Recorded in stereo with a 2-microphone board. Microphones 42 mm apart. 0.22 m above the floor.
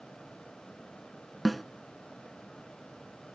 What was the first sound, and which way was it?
A snare drum, centre (ahead or behind).